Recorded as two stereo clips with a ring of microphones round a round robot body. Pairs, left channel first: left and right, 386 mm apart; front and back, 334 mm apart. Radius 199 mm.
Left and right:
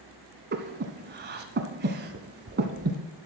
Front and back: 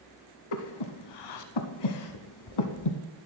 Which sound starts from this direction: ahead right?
Breathing, at 0.5 s.